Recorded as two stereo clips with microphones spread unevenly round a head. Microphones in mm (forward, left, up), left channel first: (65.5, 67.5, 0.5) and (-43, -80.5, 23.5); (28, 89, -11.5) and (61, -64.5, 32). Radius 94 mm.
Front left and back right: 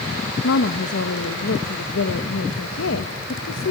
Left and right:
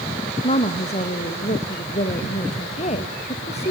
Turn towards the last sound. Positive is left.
turn(degrees=60)